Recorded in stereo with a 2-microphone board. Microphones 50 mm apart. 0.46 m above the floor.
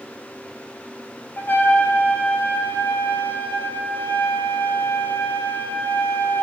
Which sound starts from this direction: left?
A trumpet, at 1.4 s.